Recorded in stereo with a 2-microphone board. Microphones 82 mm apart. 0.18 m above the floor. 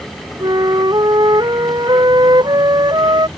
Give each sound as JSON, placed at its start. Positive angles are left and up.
{"t": 0.4, "sound": "a flute", "side_deg": -60}